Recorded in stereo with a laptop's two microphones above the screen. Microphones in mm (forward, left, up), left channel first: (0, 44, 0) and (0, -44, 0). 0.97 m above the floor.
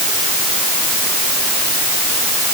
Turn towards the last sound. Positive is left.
No sound to turn to.